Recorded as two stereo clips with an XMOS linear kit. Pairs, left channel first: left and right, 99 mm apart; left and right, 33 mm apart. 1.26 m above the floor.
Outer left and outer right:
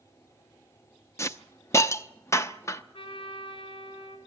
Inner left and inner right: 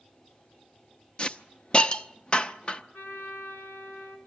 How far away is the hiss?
About 0.7 m.